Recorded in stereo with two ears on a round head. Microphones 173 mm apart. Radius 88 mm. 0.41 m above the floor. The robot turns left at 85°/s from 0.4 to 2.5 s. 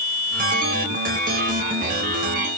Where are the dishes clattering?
No dishes clattering in this recording.